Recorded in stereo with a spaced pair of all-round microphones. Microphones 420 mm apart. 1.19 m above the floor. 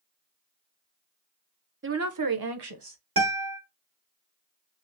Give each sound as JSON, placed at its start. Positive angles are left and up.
{"t": 1.8, "sound": "a woman speaking", "side_deg": -30, "distance_m": 0.5}
{"t": 3.2, "sound": "a guitar", "side_deg": -55, "distance_m": 1.3}